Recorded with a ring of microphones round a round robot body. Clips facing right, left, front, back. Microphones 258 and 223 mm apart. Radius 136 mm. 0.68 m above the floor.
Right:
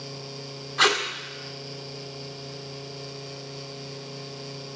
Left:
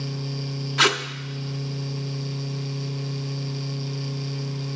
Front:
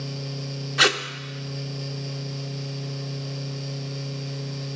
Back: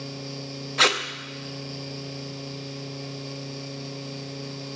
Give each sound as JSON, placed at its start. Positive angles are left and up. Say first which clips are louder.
{"t": 0.8, "sound": "tape being pulled", "louder": "left 1 dB, front 2 dB", "azimuth_deg": 80, "distance_m": 0.9}